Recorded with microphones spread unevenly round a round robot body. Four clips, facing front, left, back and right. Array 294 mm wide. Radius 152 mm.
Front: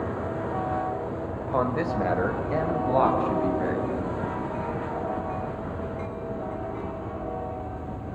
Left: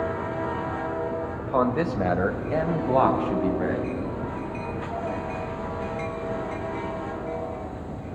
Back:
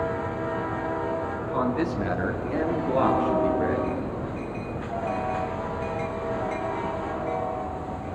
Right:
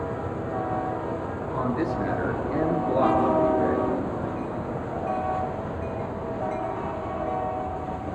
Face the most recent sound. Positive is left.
turn(degrees=65)